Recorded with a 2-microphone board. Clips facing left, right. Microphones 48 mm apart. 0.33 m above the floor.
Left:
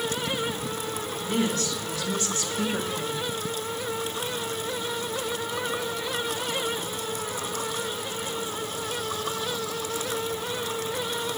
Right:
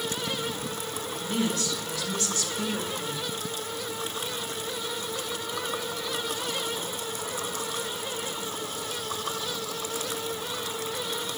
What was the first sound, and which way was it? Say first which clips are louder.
A woman speaking: left 2 dB; 35° left (ahead or behind).